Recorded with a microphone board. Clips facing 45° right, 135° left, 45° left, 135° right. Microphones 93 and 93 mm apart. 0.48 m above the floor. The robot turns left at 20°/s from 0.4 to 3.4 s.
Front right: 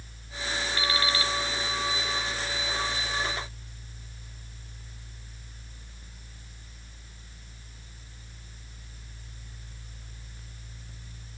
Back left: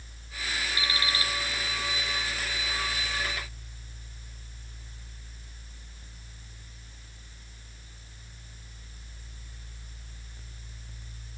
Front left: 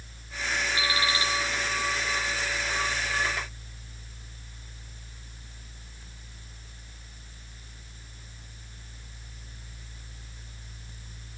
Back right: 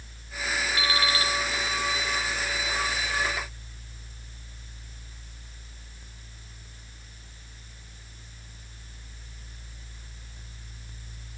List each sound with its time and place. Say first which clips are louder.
0.8 s an alarm clock: front right 4 dB, back right 2 dB; 155° right, 1.3 m; by 1.3 s 165° right, 1.3 m